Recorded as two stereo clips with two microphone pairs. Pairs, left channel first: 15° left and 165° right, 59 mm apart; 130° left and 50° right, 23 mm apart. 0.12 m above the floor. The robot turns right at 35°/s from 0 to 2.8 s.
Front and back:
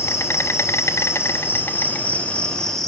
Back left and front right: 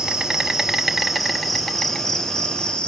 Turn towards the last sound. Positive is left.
turn(degrees=95)